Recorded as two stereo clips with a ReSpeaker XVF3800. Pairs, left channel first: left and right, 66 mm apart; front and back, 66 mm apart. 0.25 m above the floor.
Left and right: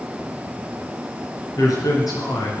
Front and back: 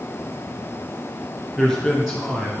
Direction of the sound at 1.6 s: 85° left.